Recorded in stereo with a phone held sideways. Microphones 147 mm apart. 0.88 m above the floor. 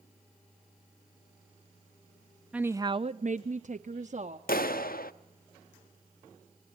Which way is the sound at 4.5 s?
80° left.